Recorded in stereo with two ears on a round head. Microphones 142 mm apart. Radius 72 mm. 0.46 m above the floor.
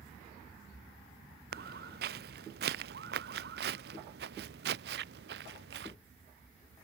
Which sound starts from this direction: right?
Footsteps, at 1.5 s.